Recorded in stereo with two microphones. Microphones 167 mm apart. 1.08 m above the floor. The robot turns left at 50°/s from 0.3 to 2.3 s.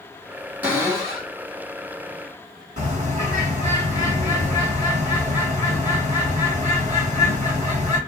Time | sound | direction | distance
0.6 | a cupboard door | 15° right | 1.2 m
2.8 | a bird | 45° right (ahead or behind) | 1.5 m